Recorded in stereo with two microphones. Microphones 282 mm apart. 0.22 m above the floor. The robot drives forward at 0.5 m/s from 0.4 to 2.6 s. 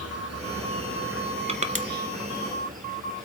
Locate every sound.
0.0 s an insect: 60° right (ahead or behind), 1.0 m; by 3.2 s 30° right (ahead or behind), 1.7 m
1.5 s crushing: 20° right (ahead or behind), 0.7 m; by 1.9 s 30° right (ahead or behind), 0.5 m